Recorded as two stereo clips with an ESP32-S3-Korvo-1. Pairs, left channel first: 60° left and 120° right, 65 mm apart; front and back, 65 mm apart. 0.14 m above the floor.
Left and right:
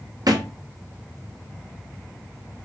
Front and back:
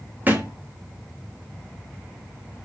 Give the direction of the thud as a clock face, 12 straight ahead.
4 o'clock.